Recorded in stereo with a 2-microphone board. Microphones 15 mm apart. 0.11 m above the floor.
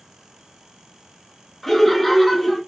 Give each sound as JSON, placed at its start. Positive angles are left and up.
{"t": 1.6, "sound": "laughter", "side_deg": 15, "distance_m": 1.2}